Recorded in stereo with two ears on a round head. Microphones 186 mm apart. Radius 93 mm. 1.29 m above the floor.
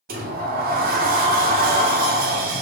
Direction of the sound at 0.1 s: 40° right (ahead or behind).